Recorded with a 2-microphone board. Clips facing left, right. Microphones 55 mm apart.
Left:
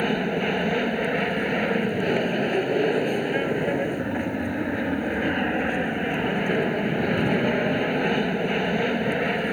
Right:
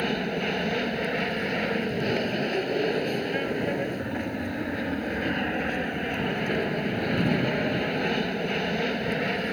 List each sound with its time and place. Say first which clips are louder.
0.0 s an aircraft: left 4 dB; 10° left (ahead or behind)